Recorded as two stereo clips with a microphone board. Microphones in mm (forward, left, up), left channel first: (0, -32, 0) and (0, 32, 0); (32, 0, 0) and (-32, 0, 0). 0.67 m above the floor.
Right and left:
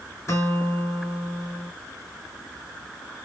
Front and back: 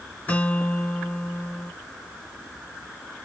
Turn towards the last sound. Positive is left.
turn(degrees=-65)